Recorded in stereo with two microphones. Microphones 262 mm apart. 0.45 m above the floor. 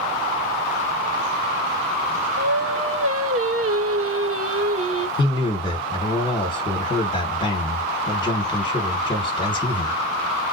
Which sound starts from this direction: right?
Singing, at 2.4 s.